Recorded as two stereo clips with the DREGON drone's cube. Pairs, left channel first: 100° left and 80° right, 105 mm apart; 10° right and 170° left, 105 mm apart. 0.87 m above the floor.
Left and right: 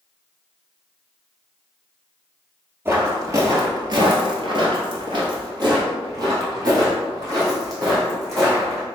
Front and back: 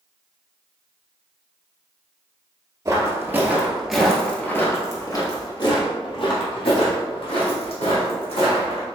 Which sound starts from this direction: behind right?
Footsteps, at 2.9 s.